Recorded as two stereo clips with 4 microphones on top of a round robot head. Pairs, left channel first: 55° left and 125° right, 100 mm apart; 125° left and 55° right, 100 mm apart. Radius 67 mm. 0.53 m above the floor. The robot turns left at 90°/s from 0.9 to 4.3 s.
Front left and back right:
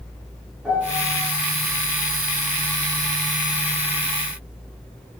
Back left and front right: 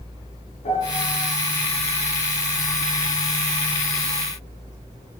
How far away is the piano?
About 6.5 m.